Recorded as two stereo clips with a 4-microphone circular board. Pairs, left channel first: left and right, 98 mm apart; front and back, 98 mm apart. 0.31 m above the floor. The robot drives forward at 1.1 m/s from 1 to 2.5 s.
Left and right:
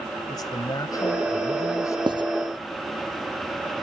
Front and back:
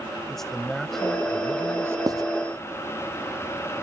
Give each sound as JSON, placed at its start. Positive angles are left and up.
{"t": 0.3, "sound": "a man speaking", "azimuth_deg": 85}
{"t": 2.1, "sound": "writing", "azimuth_deg": -130}